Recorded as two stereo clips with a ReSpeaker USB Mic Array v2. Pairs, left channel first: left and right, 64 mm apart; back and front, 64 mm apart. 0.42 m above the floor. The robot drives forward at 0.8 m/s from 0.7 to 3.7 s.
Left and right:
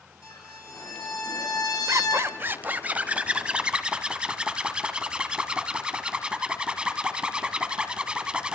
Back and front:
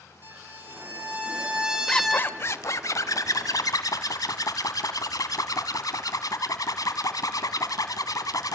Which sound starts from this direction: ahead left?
A violin, at 0.2 s.